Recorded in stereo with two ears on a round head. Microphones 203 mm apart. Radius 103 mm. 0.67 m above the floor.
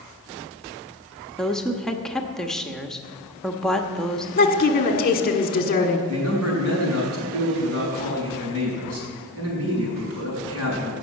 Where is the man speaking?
80° right, 5 m.